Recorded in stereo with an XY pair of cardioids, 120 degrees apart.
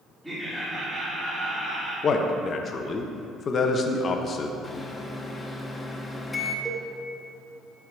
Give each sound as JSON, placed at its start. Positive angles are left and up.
{"t": 0.2, "sound": "laughter", "azimuth_deg": -10, "distance_m": 2.0}
{"t": 2.0, "sound": "a man speaking", "azimuth_deg": 40, "distance_m": 0.8}
{"t": 4.6, "sound": "a microwave", "azimuth_deg": 20, "distance_m": 1.0}
{"t": 6.7, "sound": "a cowbell", "azimuth_deg": -5, "distance_m": 0.8}